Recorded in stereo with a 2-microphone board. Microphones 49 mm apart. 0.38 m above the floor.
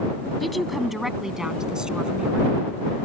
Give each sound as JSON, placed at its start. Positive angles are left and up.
{"t": 0.4, "sound": "a woman speaking", "side_deg": 0}